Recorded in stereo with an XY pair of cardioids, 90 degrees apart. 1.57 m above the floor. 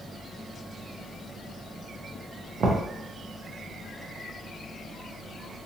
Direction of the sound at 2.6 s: 55° right.